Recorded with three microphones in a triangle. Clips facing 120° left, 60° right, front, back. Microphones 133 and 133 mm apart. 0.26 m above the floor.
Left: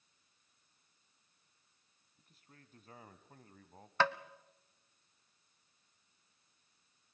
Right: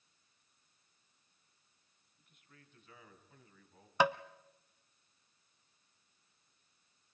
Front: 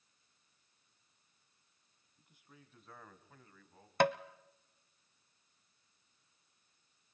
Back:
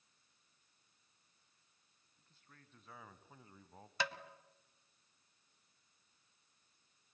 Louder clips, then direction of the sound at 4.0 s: Right 2 dB, front 12 dB; 15° left.